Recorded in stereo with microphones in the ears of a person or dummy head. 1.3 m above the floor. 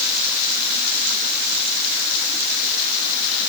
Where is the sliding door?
I don't hear a sliding door.